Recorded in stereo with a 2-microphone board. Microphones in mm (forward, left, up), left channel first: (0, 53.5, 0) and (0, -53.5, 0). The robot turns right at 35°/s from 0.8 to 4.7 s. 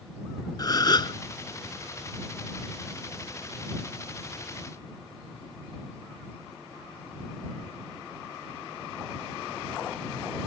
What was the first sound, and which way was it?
A gasp, 40° left (ahead or behind).